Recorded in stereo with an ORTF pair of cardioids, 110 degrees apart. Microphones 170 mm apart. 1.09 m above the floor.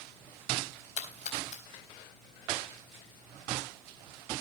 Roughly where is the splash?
Ahead left.